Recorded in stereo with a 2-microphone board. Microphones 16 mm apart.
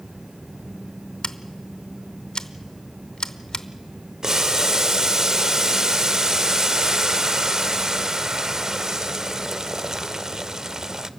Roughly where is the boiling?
Right.